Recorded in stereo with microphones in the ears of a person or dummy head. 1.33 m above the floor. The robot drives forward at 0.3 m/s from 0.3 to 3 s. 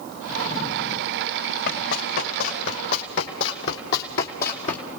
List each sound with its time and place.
1.7 s running footsteps: 70° left (ahead or behind), 4.5 m; by 4.8 s 35° left (ahead or behind), 2.5 m